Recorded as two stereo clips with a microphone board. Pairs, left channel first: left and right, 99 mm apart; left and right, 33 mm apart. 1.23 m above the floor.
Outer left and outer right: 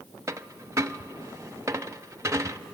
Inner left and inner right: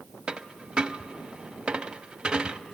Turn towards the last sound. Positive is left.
turn(degrees=-30)  # may be behind; listen again after turning